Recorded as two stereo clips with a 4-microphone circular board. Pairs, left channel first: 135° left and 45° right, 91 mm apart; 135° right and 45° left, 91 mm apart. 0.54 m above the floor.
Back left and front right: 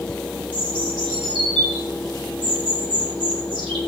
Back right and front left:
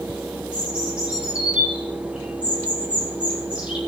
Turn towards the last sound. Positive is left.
turn(degrees=-35)